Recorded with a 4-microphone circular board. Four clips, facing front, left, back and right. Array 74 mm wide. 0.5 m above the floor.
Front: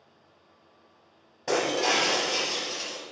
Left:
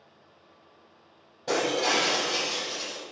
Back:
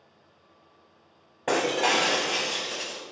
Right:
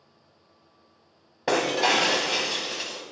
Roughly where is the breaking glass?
Behind right.